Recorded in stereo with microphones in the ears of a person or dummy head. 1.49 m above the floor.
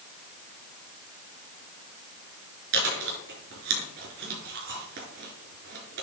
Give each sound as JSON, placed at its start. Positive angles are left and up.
{"t": 2.7, "sound": "chewing", "side_deg": -55, "distance_m": 4.0}